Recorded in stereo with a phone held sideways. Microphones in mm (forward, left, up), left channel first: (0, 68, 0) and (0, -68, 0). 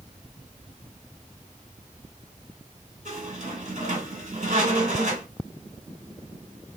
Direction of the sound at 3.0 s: 60° right (ahead or behind).